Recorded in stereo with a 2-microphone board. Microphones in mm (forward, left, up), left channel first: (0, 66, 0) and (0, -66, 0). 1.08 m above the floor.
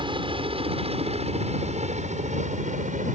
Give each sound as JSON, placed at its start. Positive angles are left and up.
{"t": 0.0, "sound": "a helicopter", "side_deg": -40}